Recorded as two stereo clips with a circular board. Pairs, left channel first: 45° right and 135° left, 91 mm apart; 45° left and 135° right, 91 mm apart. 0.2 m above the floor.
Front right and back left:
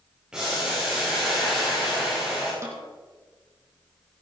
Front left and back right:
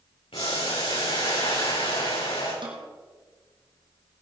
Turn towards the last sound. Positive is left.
turn(degrees=-165)